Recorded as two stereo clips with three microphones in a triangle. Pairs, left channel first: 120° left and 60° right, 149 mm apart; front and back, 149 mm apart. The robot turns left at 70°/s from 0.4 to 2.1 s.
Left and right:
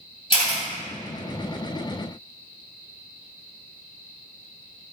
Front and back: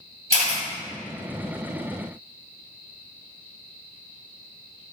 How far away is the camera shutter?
About 1.7 m.